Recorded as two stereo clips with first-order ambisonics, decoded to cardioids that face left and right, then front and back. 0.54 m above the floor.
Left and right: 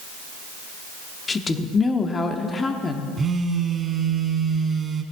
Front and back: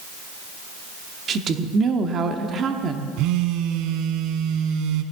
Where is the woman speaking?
150° left, 0.8 m.